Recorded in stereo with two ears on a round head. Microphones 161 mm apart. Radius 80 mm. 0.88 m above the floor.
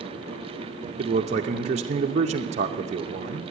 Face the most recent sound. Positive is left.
turn(degrees=-40)  # may be behind; listen again after turning